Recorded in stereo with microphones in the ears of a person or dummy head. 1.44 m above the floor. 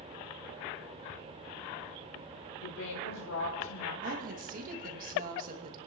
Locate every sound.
2.6 s a woman speaking: 80° left, 5 m
4.0 s a woman speaking: 45° right (ahead or behind), 2 m